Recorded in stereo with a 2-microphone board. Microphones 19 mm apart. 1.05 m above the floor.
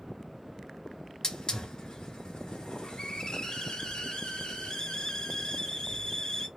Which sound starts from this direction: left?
A hiss, at 1.2 s.